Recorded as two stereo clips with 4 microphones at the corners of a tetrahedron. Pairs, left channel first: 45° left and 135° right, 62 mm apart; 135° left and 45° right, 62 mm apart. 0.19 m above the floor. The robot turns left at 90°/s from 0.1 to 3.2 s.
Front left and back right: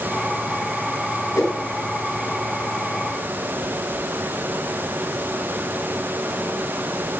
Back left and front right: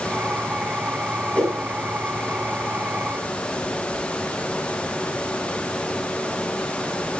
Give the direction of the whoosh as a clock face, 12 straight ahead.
10 o'clock.